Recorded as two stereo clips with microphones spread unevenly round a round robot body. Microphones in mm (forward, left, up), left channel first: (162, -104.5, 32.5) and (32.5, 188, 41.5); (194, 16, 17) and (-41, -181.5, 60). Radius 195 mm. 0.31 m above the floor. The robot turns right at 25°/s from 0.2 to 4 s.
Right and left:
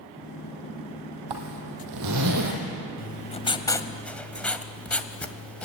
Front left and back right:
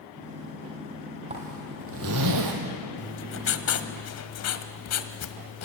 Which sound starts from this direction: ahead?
Writing, at 3.0 s.